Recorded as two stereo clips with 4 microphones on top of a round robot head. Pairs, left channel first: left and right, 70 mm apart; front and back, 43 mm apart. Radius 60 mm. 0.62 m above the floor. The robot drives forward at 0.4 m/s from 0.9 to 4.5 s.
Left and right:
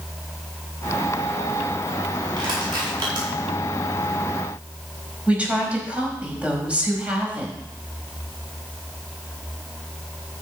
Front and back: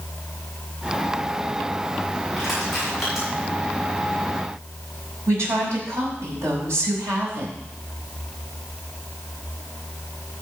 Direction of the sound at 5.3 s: 160° right.